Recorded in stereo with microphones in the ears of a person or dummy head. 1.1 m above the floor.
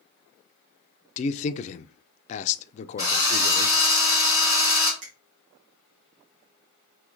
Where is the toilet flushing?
No toilet flushing in this recording.